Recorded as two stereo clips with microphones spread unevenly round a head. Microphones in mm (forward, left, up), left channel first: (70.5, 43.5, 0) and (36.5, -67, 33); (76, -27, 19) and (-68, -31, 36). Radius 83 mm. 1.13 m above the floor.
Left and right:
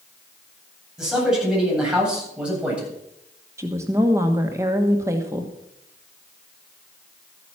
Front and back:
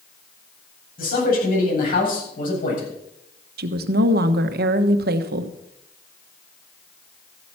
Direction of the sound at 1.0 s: 20° right.